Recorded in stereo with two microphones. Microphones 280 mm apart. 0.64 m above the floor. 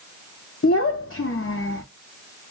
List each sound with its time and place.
0.6 s a child speaking: 50° left (ahead or behind), 0.5 m